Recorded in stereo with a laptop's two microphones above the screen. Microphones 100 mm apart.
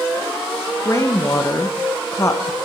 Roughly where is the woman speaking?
Left.